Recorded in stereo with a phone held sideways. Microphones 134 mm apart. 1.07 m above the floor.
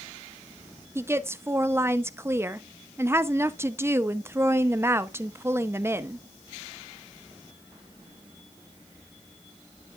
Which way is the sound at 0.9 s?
20° right (ahead or behind).